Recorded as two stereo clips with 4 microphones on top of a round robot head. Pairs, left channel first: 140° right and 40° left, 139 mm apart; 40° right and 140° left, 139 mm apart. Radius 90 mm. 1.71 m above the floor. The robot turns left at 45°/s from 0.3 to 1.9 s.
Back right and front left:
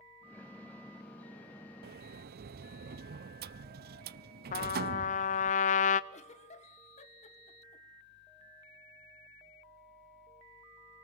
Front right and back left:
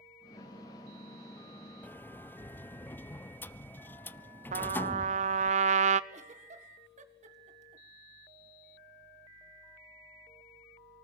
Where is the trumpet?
Straight behind, 0.7 m.